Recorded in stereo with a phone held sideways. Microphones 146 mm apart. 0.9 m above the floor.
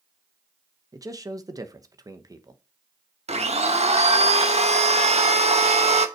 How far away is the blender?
About 1.2 m.